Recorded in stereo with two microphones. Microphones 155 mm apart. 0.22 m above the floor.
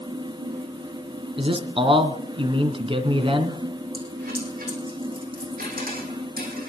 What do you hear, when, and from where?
1.4 s a man speaking: 35° right (ahead or behind), 2.0 m
3.9 s a dropped coin: 65° right (ahead or behind), 5.5 m